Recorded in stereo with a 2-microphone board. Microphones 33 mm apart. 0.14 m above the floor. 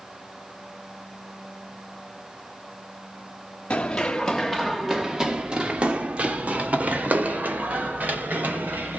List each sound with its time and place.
3.7 s running footsteps: 40° left (ahead or behind), 1.0 m; by 9.0 s 70° right (ahead or behind), 3.5 m